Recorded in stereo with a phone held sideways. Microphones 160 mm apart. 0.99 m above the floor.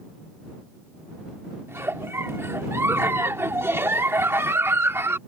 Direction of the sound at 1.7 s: 15° right (ahead or behind).